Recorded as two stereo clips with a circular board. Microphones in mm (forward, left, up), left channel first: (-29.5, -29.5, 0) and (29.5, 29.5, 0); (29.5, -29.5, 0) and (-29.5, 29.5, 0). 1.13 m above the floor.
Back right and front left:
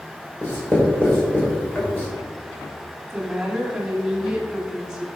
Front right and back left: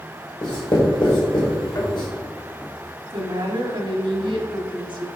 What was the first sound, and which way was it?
Writing, 70° right.